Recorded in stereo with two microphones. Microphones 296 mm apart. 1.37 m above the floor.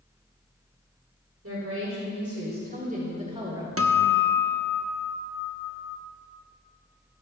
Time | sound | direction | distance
1.4 | a woman speaking | 55° right (ahead or behind) | 4 m
3.8 | a guitar | 50° right (ahead or behind) | 1.1 m